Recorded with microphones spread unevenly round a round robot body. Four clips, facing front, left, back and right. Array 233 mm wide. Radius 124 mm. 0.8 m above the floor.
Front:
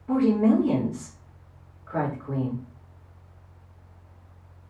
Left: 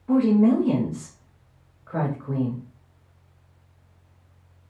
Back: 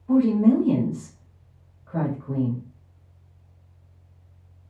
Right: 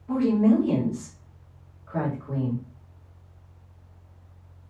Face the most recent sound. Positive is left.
turn(degrees=50)